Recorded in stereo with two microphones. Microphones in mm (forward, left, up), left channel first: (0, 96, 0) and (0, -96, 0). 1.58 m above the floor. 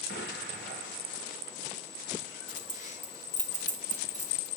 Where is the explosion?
70° left (ahead or behind), 2.5 m.